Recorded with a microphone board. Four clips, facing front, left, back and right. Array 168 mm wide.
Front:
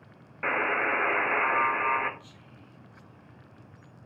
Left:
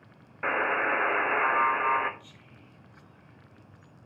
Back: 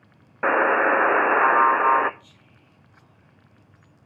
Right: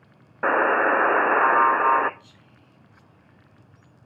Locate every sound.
0.4 s a buzzer: 135° right, 0.5 m
2.2 s whispering: 90° left, 4.5 m